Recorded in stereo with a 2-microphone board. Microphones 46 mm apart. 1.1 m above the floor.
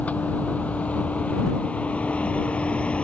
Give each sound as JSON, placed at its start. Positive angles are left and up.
{"t": 0.0, "sound": "a vehicle", "side_deg": 35}